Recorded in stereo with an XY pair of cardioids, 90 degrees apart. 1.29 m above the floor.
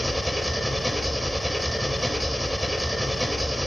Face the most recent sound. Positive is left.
turn(degrees=0)